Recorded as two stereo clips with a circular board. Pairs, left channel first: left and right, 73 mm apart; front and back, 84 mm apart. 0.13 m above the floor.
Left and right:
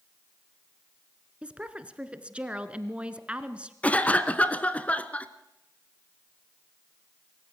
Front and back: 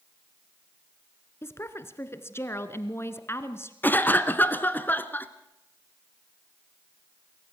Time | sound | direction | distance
1.4 | a woman speaking | 25° right | 1.3 m
3.8 | a cough | 40° left | 1.2 m